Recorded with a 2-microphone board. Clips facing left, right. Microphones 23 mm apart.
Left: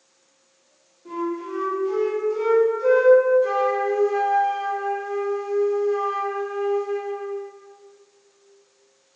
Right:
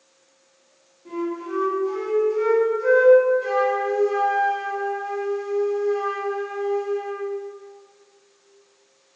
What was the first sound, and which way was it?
A flute, 5° left (ahead or behind).